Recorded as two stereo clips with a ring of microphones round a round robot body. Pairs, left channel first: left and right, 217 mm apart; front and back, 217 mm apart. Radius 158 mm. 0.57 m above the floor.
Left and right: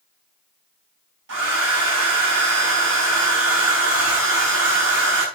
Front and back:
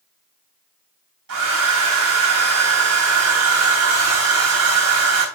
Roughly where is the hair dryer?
Behind right.